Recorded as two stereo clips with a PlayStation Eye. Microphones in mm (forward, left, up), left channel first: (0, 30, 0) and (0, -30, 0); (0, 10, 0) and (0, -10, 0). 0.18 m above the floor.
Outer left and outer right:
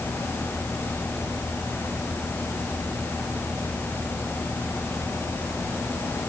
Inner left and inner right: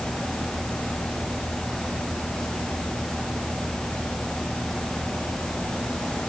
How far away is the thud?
No thud in this recording.